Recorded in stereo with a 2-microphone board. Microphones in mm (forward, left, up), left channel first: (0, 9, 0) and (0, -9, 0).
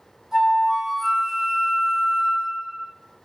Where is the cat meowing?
No cat meowing in this recording.